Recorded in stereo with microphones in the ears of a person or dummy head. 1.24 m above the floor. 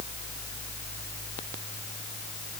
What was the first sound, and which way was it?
Only background noise.